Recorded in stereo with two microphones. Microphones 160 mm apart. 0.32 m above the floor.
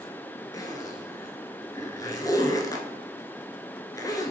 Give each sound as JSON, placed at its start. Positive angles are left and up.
{"t": 0.5, "sound": "a zipper", "side_deg": 20, "distance_m": 0.6}